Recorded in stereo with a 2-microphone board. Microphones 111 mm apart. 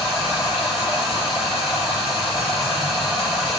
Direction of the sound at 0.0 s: 35° right (ahead or behind).